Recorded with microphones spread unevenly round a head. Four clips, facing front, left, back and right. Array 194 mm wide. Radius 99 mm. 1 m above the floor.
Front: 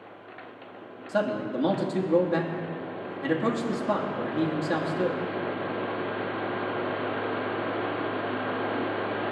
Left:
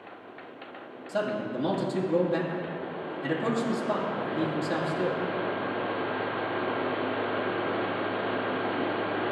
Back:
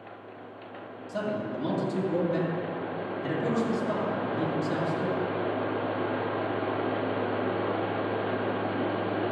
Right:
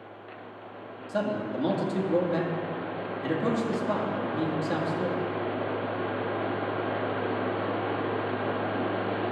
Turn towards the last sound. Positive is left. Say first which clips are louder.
# even, front 4 dB
turn(degrees=-15)